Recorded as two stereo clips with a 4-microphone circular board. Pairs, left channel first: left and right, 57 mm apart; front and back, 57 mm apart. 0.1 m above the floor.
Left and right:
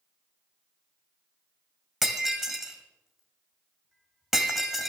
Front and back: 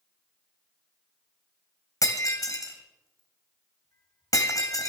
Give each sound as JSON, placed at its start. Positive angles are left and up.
{"t": 2.0, "sound": "breaking glass", "azimuth_deg": -5, "distance_m": 2.0}